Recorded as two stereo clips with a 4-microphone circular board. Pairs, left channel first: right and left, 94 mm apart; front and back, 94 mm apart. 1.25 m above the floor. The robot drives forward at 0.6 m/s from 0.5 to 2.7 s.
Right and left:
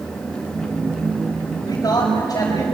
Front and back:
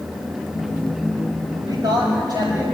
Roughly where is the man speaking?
Behind right.